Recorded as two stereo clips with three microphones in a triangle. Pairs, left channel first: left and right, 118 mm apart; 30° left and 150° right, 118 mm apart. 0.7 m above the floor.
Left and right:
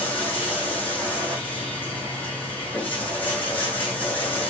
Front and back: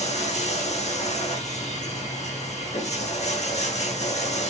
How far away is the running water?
About 5 m.